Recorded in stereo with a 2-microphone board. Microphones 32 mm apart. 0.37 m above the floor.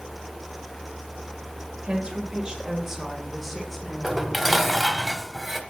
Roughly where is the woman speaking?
Right.